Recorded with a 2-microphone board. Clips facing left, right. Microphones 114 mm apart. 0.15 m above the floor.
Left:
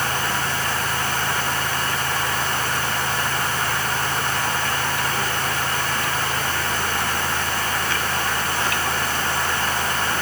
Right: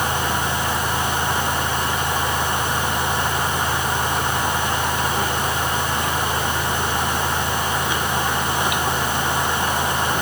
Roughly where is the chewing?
I don't hear chewing.